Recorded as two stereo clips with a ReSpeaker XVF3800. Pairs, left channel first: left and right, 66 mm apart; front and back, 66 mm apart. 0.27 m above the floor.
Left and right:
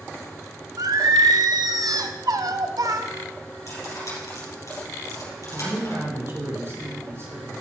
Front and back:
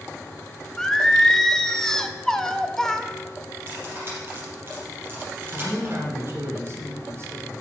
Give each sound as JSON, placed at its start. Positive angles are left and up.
{"t": 0.8, "sound": "singing", "azimuth_deg": -85, "distance_m": 0.7}
{"t": 3.7, "sound": "cutlery clinking", "azimuth_deg": 125, "distance_m": 4.5}
{"t": 5.5, "sound": "a man speaking", "azimuth_deg": -135, "distance_m": 3.0}